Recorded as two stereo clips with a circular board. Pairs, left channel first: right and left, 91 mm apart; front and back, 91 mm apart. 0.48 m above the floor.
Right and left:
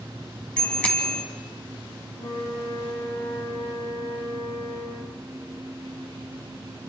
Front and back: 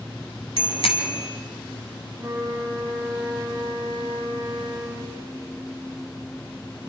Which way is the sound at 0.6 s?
10° right.